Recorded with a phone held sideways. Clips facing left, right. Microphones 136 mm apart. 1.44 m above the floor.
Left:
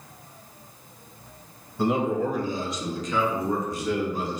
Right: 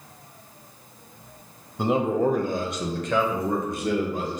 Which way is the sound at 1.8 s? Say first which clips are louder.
Right 2 dB; 15° right (ahead or behind).